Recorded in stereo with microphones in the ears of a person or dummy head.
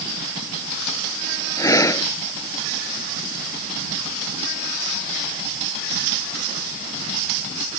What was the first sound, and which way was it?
Breathing, 15° left (ahead or behind).